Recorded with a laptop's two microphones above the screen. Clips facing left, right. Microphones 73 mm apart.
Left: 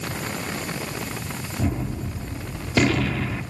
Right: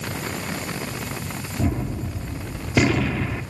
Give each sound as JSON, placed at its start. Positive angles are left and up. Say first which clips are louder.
{"t": 1.6, "sound": "a gunshot", "louder": "right 2 dB", "side_deg": -5, "distance_m": 2.5}